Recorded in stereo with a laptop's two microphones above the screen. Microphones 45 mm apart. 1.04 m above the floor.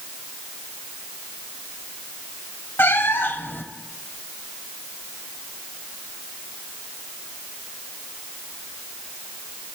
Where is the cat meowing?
60° left (ahead or behind), 1.6 m.